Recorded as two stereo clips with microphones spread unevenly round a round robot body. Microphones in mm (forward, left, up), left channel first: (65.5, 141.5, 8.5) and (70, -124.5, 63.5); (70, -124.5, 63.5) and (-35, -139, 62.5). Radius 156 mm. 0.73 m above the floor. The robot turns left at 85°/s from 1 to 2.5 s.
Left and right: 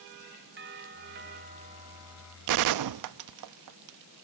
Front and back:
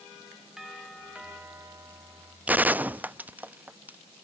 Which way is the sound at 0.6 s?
95° right.